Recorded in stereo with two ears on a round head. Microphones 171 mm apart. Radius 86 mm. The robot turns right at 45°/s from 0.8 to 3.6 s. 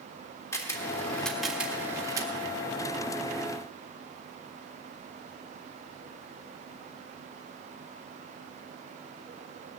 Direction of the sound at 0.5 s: 15° left (ahead or behind).